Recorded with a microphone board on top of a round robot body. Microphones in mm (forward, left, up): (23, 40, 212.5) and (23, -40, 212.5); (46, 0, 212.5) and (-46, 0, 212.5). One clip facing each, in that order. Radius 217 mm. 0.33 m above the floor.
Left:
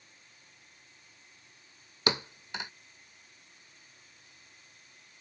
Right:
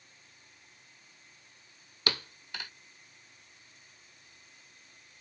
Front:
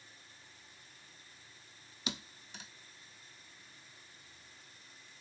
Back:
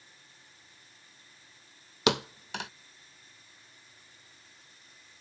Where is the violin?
No violin in this recording.